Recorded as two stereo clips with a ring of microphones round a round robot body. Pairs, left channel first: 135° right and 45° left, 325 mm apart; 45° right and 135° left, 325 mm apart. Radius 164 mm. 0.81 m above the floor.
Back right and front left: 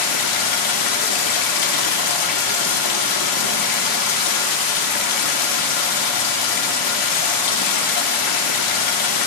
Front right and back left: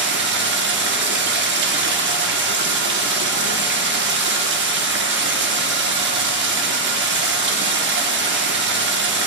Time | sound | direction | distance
0.0 | running water | 165° right | 0.9 m